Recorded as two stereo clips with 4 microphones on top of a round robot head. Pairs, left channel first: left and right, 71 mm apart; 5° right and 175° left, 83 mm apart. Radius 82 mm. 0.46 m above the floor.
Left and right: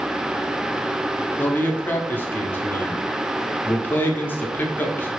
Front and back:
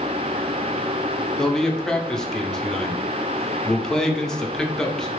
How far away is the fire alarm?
No fire alarm in this recording.